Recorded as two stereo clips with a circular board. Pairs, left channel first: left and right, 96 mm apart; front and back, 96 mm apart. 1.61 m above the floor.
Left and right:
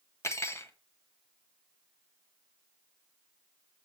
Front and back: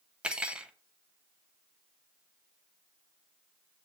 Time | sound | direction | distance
0.2 | cutlery clinking | 110° left | 0.9 m